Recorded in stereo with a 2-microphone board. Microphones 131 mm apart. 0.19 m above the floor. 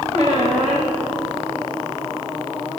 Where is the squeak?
55° right (ahead or behind), 3 m.